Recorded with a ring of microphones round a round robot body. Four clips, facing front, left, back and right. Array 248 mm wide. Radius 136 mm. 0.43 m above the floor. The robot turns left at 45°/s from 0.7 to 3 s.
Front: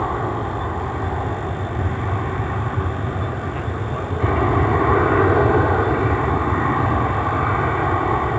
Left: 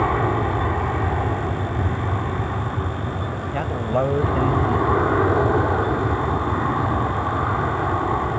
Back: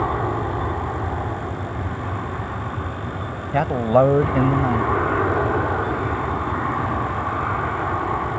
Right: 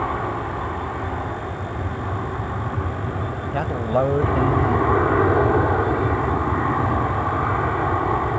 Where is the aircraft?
90° left; by 8.4 s 15° right.